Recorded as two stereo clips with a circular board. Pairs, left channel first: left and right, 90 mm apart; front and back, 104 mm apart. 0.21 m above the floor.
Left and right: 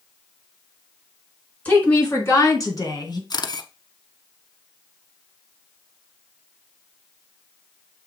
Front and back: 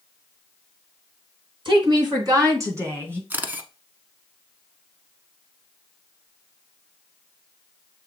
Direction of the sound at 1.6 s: 160° left.